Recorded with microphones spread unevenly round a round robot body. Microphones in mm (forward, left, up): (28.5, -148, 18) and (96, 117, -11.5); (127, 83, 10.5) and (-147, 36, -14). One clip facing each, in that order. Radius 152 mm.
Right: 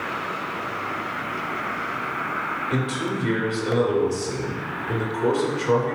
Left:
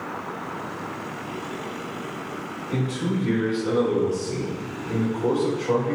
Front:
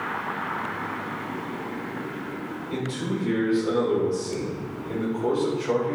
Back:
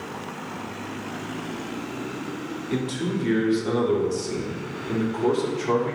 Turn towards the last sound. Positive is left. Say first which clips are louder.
# even, back 3 dB
turn(degrees=-165)